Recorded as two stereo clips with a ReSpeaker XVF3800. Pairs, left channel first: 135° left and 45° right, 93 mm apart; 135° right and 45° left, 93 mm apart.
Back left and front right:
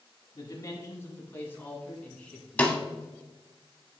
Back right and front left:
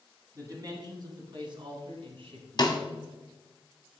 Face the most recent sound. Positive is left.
turn(degrees=-155)